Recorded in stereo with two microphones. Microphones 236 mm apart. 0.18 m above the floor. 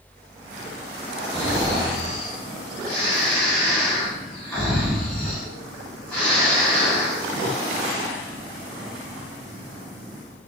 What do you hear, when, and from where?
1.3 s snoring: 5° left (ahead or behind), 2.5 m